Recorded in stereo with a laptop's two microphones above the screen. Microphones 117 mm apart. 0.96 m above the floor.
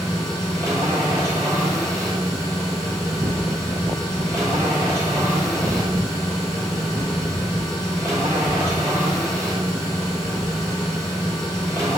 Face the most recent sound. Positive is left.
turn(degrees=-25)  # may be behind; listen again after turning